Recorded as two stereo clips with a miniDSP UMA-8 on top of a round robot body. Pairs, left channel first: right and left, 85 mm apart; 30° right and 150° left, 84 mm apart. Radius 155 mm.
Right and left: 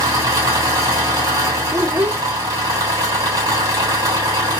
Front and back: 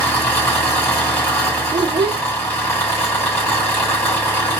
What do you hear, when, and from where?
0.0 s an engine running: 35° left, 2.5 m
1.7 s a child speaking: 160° left, 0.7 m